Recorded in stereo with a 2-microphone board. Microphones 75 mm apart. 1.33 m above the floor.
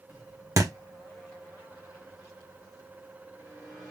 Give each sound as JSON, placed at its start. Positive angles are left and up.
{"t": 0.6, "sound": "a thud", "side_deg": -45, "distance_m": 1.2}